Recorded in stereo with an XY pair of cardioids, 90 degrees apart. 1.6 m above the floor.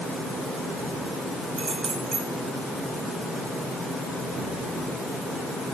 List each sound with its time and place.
1.6 s keys jangling: 60° right, 6.5 m